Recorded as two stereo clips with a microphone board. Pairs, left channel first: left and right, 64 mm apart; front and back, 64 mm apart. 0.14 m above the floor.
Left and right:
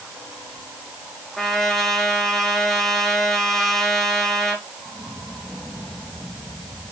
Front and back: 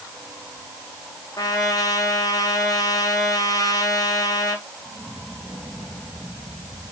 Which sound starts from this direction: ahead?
A trumpet, at 1.4 s.